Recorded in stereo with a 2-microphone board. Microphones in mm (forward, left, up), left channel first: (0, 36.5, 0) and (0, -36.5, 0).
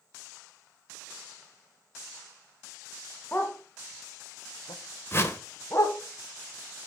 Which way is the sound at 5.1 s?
30° left (ahead or behind).